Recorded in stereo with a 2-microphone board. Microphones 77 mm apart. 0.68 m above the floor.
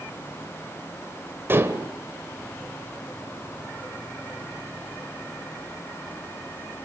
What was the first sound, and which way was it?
Dishes clattering, 30° right (ahead or behind).